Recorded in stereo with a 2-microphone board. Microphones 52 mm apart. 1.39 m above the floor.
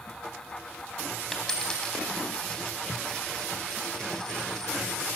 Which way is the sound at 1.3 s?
10° left (ahead or behind).